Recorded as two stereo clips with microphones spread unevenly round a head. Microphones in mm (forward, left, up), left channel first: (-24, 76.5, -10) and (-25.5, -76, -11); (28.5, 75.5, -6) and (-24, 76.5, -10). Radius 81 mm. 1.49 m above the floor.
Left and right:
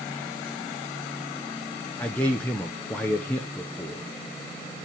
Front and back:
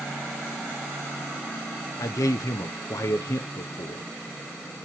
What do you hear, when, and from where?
2.0 s a man speaking: 10° left, 0.7 m